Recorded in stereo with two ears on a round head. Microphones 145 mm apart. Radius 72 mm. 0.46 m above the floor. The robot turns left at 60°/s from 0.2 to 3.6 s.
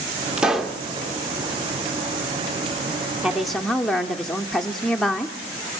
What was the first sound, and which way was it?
A pop, 5° right (ahead or behind).